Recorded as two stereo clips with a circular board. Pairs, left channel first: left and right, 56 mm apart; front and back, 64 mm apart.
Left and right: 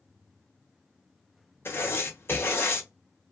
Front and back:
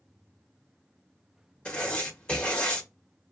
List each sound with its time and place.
1.6 s writing: 70° left, 1.0 m